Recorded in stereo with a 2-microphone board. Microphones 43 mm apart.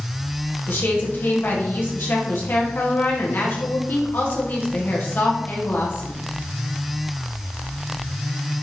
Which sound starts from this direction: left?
A woman speaking, at 0.7 s.